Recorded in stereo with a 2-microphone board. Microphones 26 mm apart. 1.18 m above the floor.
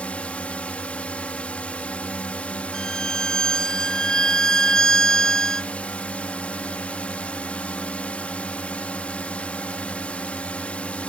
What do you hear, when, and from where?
0.0 s a drone: 60° left (ahead or behind)
2.7 s a violin: 30° left (ahead or behind)